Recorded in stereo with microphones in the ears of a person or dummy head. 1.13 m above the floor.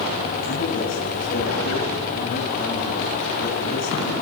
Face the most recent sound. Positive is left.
turn(degrees=45)  # may be behind; listen again after turning